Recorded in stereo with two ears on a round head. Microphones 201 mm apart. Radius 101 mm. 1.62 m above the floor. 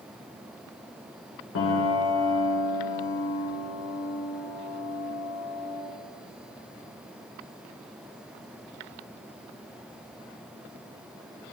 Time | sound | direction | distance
1.6 | a piano | 60° left (ahead or behind) | 1.1 m